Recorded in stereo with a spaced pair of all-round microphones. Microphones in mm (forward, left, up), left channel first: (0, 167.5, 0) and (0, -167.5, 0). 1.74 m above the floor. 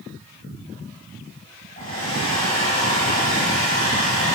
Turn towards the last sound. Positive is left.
turn(degrees=25)  # may be behind; listen again after turning